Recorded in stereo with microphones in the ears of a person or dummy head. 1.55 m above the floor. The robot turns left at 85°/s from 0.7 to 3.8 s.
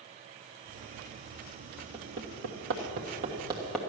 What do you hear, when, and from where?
1.9 s hammering: 30° right (ahead or behind), 1.4 m; by 3.8 s 10° left (ahead or behind), 1.4 m